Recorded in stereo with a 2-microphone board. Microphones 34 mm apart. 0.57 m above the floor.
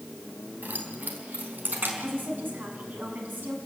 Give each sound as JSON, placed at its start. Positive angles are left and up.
{"t": 0.6, "sound": "keys jangling", "side_deg": -80, "distance_m": 3.5}
{"t": 2.0, "sound": "a woman speaking", "side_deg": -75, "distance_m": 6.5}